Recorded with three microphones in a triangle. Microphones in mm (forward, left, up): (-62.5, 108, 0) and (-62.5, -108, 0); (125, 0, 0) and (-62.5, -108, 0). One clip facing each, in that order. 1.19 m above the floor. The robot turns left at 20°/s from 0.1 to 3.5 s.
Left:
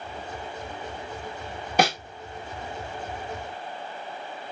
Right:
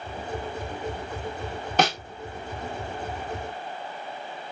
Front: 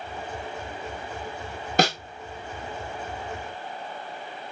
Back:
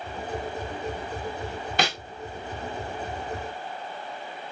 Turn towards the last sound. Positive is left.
turn(degrees=-20)